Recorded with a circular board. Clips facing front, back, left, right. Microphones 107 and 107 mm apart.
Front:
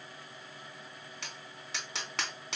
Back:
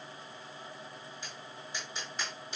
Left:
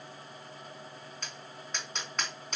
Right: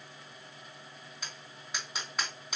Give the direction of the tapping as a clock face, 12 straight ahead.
12 o'clock.